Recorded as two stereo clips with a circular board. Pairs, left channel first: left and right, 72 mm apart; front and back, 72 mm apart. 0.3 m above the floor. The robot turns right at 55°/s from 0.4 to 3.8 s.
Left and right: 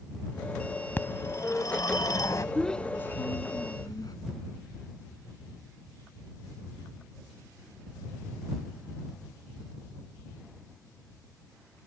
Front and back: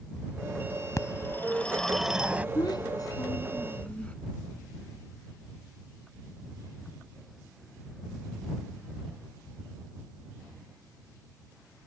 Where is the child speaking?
Straight ahead; by 4.2 s 70° left.